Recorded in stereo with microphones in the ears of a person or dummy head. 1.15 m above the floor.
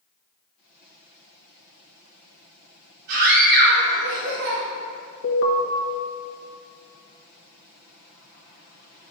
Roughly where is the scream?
Right.